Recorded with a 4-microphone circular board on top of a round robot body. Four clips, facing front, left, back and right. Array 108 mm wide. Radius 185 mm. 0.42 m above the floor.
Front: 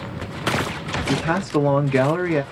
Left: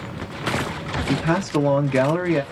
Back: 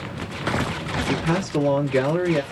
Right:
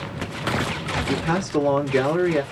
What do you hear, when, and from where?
1.1 s a man speaking: 25° left, 1.5 m